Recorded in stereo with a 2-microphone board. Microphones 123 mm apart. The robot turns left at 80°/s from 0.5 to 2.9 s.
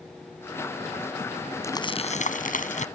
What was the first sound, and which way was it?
Crumpling, 160° left.